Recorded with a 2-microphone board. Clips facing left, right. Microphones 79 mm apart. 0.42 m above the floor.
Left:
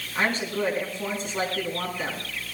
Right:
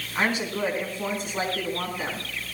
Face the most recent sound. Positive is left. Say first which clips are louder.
# even
turn(degrees=-10)  # may be behind; listen again after turning